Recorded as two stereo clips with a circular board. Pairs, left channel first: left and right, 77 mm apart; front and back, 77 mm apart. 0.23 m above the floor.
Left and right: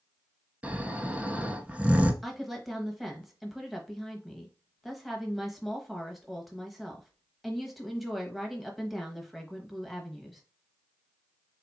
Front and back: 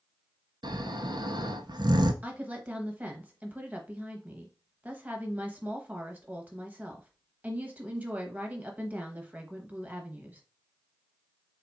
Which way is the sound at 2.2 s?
Straight behind.